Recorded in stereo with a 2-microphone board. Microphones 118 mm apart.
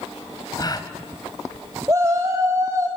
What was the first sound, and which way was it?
A gasp, 35° left (ahead or behind).